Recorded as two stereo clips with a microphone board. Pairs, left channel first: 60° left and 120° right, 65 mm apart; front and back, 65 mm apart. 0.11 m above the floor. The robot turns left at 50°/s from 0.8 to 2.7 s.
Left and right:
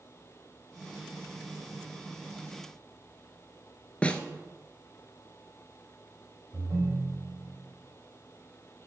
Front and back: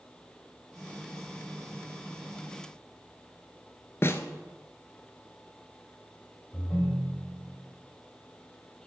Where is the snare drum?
Straight ahead, 0.8 m.